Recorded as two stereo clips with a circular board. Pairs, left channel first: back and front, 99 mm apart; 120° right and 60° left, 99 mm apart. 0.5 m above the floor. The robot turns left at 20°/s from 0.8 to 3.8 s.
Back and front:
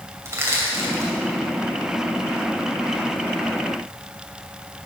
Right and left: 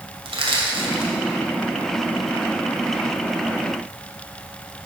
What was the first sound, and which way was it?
Crushing, 60° left.